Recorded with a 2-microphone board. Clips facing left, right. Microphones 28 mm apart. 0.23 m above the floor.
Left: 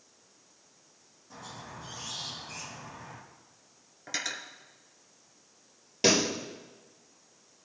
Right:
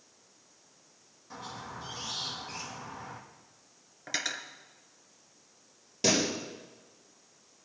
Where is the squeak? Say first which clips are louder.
Right 3 dB; 40° right (ahead or behind), 4 m.